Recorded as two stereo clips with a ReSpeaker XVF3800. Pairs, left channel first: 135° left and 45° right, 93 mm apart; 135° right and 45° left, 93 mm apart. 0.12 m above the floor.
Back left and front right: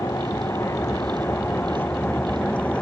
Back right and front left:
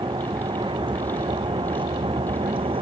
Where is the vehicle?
75° left; by 2.8 s 60° left.